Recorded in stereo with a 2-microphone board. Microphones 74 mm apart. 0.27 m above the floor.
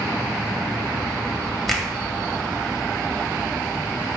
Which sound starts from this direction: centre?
A finger snap, at 1.7 s.